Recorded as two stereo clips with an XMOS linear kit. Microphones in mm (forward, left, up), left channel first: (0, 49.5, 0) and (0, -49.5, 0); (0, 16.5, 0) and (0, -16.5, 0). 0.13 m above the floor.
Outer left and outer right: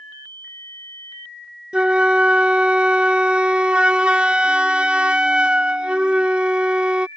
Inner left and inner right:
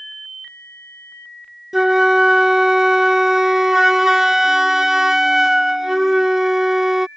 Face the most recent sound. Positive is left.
turn(degrees=-10)  # may be behind; listen again after turning